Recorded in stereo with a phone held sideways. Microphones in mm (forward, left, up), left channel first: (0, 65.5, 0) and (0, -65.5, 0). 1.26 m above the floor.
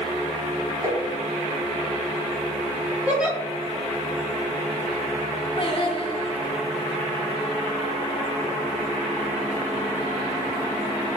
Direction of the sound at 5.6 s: 40° left (ahead or behind).